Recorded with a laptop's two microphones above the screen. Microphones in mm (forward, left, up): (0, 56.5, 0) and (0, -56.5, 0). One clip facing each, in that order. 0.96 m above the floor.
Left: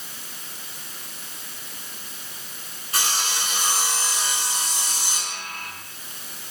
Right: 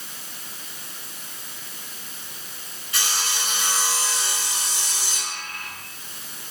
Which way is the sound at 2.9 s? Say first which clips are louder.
Left 2 dB; 40° left (ahead or behind).